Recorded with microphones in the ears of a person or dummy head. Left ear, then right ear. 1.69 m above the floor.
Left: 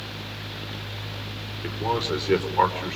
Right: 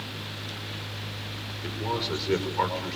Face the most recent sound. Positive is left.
turn(degrees=25)  # may be behind; listen again after turning